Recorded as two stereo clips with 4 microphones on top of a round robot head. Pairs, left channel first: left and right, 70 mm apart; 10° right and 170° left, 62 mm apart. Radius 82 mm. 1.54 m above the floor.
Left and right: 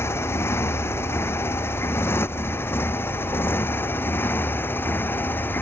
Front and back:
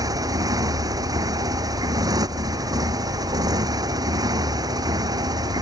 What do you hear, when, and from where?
0.0 s a motorcycle: 145° left; by 5.6 s 150° left